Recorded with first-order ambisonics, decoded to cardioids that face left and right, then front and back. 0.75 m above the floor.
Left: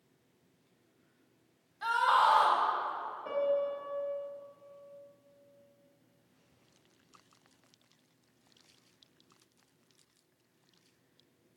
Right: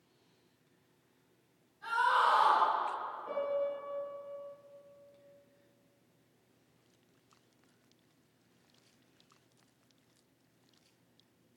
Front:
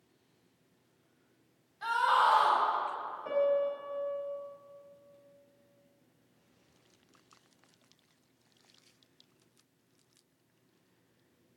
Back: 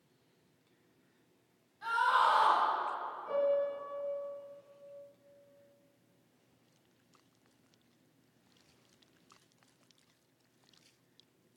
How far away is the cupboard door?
I don't hear a cupboard door.